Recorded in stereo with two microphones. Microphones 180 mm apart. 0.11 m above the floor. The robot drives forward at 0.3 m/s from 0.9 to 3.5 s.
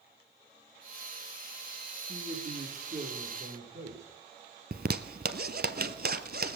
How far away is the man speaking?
About 4 m.